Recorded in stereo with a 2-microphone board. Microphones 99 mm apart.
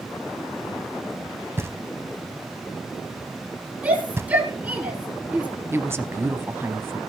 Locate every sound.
1.6 s knocking: 25° right (ahead or behind), 0.7 m
3.8 s a shout: 15° right (ahead or behind), 6 m
5.7 s a woman speaking: 25° right (ahead or behind), 1.1 m